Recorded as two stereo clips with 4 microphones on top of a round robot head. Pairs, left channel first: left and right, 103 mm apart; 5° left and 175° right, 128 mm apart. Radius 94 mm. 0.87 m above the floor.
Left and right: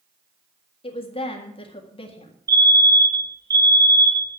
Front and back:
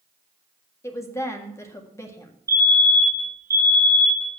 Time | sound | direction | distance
0.8 | a woman speaking | 70° left | 1.8 m
2.5 | a fire alarm | 120° right | 2 m